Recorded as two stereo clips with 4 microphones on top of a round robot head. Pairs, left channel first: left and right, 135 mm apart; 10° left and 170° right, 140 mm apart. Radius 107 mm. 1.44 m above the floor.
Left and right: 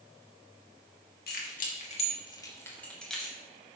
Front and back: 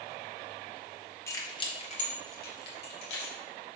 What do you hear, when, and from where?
1.3 s keys jangling: 80° left, 1.4 m; by 3.4 s 5° right, 1.9 m